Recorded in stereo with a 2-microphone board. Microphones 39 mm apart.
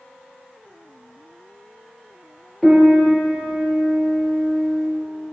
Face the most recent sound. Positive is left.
turn(degrees=10)  # may be behind; listen again after turning